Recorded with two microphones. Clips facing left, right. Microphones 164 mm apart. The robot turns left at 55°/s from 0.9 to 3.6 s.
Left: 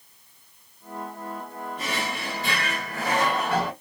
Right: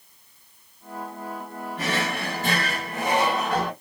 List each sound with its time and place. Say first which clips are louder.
1.8 s a drawer: right 5 dB; 90° right, 1.4 m; by 3.7 s 170° left, 1.4 m